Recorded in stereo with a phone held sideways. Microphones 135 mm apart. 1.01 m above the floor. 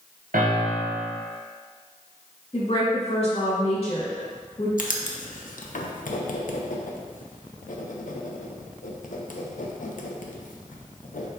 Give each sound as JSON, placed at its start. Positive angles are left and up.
{"t": 0.3, "sound": "a piano", "side_deg": -75, "distance_m": 0.6}
{"t": 2.5, "sound": "a woman speaking", "side_deg": 45, "distance_m": 1.4}
{"t": 4.8, "sound": "writing", "side_deg": 70, "distance_m": 0.5}